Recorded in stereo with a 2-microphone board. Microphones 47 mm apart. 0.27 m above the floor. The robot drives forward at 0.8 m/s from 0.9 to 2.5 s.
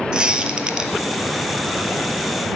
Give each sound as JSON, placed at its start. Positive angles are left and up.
{"t": 0.1, "sound": "a squeak", "side_deg": -15, "distance_m": 0.7}